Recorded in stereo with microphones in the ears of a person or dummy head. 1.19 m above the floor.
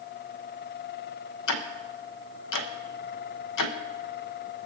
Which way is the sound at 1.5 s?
65° left (ahead or behind).